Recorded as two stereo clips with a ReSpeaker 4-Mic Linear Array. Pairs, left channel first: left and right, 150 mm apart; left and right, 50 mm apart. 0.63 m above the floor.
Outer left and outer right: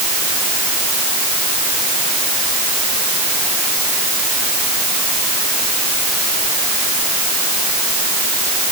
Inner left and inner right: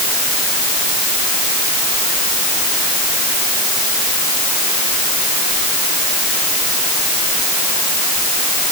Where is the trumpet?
I don't hear a trumpet.